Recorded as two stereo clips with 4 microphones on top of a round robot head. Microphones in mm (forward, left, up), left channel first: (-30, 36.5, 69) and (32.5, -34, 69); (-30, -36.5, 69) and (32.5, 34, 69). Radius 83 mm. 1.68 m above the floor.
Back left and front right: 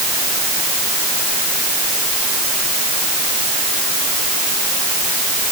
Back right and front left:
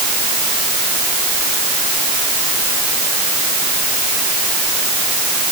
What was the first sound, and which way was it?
Only background noise.